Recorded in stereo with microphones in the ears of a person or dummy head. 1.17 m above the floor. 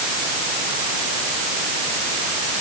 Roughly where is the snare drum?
No snare drum in this recording.